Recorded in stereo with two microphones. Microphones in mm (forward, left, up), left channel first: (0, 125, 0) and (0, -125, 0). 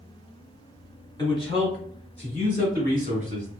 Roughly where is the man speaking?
Centre.